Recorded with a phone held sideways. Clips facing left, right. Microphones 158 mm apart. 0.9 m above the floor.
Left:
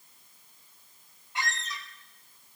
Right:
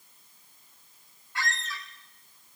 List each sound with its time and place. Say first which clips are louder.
1.4 s a squeak: even; 20° left (ahead or behind), 0.8 m